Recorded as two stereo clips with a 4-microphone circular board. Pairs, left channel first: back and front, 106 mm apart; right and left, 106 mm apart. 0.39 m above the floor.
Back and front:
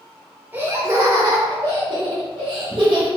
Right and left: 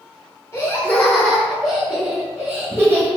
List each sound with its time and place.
0.5 s laughter: 55° right, 0.9 m; by 3.1 s 25° left, 1.5 m